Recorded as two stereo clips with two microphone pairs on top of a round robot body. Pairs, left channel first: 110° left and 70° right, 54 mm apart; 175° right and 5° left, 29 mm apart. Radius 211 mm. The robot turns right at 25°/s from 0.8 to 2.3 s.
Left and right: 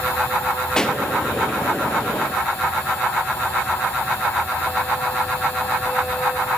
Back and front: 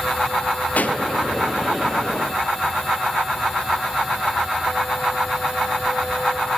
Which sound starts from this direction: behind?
A pop, at 0.8 s.